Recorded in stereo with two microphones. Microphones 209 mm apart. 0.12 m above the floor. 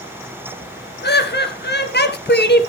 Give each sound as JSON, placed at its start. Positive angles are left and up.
{"t": 1.0, "sound": "laughter", "side_deg": 55, "distance_m": 2.0}